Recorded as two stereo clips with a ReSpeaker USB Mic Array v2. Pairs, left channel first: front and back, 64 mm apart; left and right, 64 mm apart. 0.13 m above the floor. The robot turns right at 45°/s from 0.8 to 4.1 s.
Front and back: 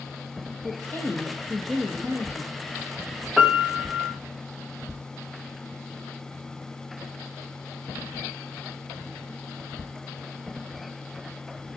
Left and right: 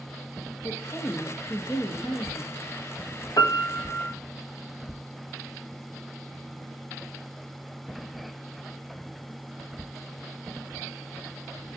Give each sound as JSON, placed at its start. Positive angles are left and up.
{"t": 0.6, "sound": "a woman speaking", "azimuth_deg": 45, "distance_m": 4.5}
{"t": 3.4, "sound": "a piano", "azimuth_deg": 90, "distance_m": 2.0}